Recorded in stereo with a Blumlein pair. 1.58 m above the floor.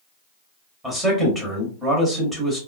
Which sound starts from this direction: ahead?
A man speaking, at 0.8 s.